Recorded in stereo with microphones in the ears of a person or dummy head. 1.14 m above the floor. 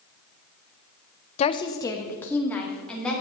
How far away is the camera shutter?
I don't hear a camera shutter.